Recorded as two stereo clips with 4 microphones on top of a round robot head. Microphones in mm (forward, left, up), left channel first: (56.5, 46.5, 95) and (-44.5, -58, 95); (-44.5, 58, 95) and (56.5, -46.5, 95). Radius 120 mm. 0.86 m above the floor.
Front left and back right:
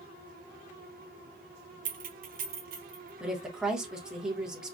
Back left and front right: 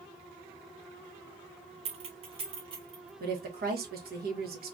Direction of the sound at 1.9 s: 100° right.